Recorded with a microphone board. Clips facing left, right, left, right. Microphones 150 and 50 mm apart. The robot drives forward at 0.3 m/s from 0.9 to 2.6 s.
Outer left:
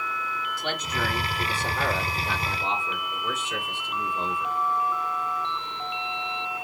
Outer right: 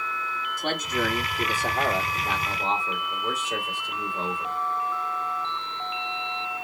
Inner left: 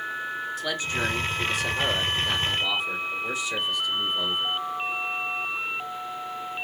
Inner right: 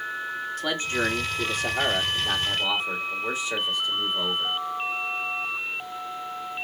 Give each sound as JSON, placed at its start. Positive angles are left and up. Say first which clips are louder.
{"t": 0.6, "sound": "a man speaking", "louder": "outer right 4 dB, inner right 3 dB", "side_deg": -45, "distance_m": 1.5}